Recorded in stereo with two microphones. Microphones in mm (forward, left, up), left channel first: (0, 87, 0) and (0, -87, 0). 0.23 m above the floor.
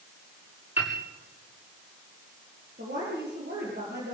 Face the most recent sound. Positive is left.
turn(degrees=-75)  # may be behind; listen again after turning